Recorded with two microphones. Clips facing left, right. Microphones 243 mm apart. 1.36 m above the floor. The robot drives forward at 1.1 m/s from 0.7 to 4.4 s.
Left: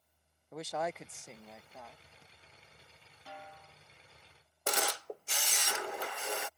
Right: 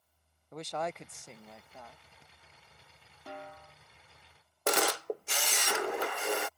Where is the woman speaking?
5° left (ahead or behind); by 2.0 s centre (ahead or behind).